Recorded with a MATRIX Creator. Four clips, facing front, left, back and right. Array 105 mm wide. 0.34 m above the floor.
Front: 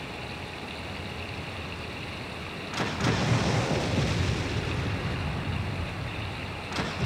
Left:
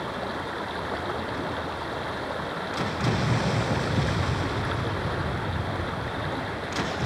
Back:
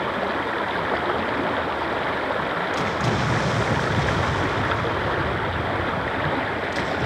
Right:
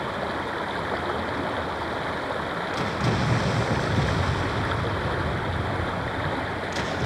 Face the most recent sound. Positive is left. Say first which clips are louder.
# right 3 dB, back 15 dB
turn(degrees=-170)